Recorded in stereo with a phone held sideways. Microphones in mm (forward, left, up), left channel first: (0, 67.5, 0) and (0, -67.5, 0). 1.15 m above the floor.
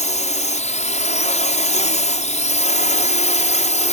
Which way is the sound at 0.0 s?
60° left (ahead or behind).